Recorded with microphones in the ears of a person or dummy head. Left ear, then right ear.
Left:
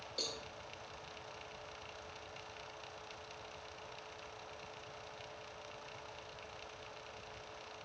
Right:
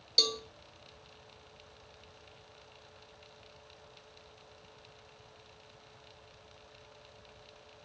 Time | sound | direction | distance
0.2 | a cowbell | 45° right (ahead or behind) | 2.5 m